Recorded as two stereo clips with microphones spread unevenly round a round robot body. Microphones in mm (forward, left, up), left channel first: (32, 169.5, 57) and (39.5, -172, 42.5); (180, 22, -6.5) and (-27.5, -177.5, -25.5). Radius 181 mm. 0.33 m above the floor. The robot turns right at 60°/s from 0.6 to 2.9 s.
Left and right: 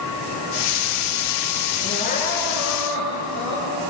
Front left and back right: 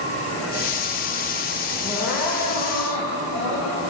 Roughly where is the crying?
Behind left.